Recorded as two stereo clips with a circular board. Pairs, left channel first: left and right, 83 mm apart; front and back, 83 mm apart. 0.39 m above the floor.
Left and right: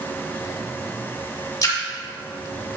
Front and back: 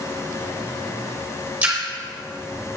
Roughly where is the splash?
Left.